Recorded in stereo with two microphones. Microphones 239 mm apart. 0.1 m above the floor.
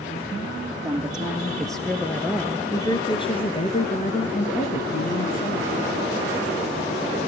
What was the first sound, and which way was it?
A woman speaking, 5° right (ahead or behind).